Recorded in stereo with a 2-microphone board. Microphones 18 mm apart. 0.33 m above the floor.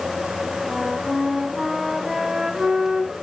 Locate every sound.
0.7 s a flute: 40° right (ahead or behind), 2 m